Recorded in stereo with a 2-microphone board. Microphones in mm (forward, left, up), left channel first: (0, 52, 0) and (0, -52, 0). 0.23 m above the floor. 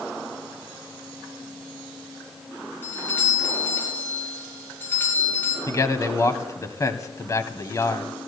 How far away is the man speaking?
About 1.4 m.